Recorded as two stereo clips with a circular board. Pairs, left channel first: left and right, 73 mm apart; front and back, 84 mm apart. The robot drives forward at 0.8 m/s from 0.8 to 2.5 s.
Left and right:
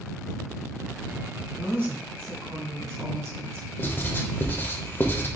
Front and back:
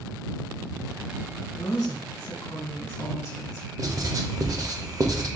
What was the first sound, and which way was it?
A woman speaking, 30° right.